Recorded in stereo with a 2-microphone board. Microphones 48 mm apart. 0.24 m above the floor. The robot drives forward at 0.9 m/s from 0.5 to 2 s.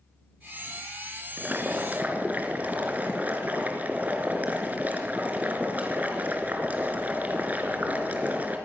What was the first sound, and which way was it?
Boiling, 40° right (ahead or behind).